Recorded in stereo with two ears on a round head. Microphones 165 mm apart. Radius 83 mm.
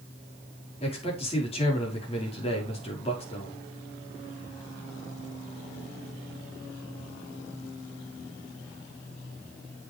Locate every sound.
0.8 s a man speaking: 35° left (ahead or behind), 5.5 m